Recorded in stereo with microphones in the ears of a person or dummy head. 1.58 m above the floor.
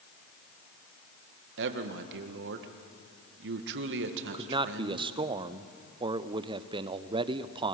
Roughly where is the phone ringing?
I don't hear a phone ringing.